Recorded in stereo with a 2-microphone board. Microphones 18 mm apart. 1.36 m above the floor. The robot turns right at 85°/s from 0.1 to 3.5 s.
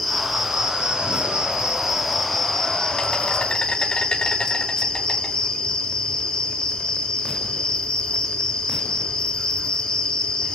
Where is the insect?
Straight behind, 6.5 m; by 10.6 s 105° left, 6.5 m.